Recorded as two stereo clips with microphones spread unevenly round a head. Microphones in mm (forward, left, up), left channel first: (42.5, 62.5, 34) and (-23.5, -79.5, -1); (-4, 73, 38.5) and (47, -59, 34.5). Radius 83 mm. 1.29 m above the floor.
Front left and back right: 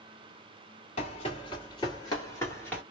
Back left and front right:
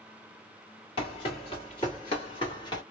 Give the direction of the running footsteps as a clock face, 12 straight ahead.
9 o'clock.